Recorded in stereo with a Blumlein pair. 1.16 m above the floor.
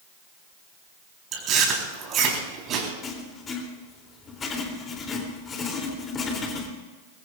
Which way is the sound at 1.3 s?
30° right.